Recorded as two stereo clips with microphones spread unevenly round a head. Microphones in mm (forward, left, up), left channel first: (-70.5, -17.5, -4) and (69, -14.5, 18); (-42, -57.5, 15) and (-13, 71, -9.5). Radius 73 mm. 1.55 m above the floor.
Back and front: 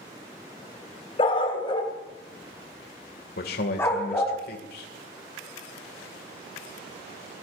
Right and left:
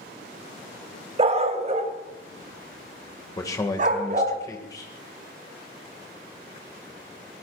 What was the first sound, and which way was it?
A dog barking, 125° left.